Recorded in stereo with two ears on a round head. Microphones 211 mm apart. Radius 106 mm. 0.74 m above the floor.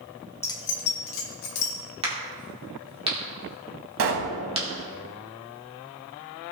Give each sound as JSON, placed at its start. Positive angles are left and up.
{"t": 0.4, "sound": "keys jangling", "side_deg": 10, "distance_m": 0.9}
{"t": 2.0, "sound": "a crack", "side_deg": -25, "distance_m": 2.0}
{"t": 4.0, "sound": "a pop", "side_deg": -60, "distance_m": 1.0}